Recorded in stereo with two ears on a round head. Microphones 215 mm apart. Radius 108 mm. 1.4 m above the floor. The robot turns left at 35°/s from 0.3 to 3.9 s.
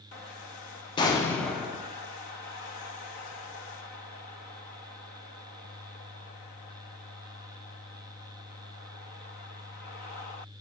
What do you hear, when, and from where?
1.0 s an explosion: 20° left, 0.9 m; by 1.9 s 10° right, 0.9 m